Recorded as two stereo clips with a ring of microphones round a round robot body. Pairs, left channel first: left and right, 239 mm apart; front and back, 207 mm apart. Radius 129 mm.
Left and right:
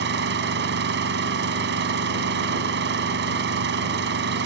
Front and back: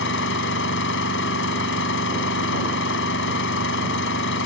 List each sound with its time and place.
0.0 s an engine running: 45° right